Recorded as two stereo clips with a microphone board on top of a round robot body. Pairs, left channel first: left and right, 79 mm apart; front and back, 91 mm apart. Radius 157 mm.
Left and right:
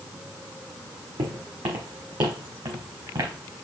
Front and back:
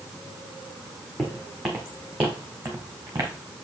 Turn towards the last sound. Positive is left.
turn(degrees=-120)